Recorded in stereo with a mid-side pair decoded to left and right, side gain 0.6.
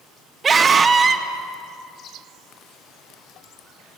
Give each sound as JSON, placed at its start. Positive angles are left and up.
{"t": 0.4, "sound": "a scream", "azimuth_deg": -30, "distance_m": 2.0}